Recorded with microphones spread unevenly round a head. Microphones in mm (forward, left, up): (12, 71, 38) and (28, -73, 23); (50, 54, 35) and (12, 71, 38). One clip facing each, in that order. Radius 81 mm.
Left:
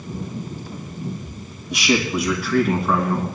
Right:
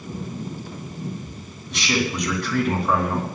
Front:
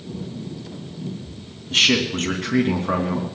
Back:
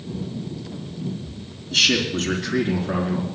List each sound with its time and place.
1.7 s a man speaking: 20° left, 3 m; by 3.3 s straight ahead, 3 m